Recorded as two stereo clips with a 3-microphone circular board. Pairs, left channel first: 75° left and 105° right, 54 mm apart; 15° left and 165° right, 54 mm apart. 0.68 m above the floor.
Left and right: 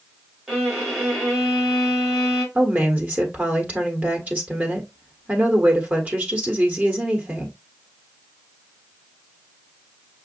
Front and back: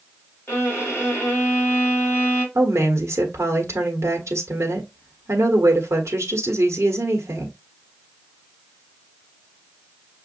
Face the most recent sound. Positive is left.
turn(degrees=-160)